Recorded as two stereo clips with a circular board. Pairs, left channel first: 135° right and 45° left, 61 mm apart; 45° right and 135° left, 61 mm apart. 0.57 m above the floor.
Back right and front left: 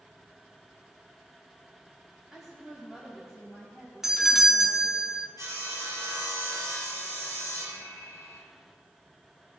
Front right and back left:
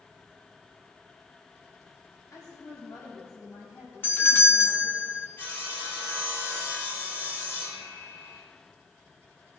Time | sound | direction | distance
2.3 | a woman speaking | 40° right | 3.5 m
4.0 | a doorbell | 35° right | 1.6 m
5.4 | sawing | 10° left | 5 m